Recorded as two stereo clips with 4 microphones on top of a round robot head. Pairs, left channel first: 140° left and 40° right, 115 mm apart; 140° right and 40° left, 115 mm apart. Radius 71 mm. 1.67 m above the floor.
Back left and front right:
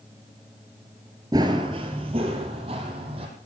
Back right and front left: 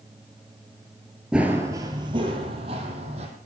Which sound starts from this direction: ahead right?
Running footsteps, at 1.3 s.